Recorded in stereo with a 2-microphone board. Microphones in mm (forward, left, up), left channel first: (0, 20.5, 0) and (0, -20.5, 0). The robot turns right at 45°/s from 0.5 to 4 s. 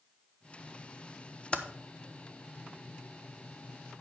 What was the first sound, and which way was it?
Typing on a keyboard, 25° left (ahead or behind).